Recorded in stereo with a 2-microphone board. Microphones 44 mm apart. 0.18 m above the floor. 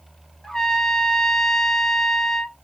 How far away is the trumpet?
About 0.7 m.